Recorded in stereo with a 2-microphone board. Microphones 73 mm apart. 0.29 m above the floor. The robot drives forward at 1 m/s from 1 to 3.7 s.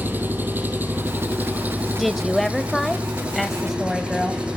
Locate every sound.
0.0 s an engine running: 25° right (ahead or behind), 3 m; by 4.6 s 15° right (ahead or behind), 5.5 m
2.0 s a woman speaking: centre (ahead or behind), 1.0 m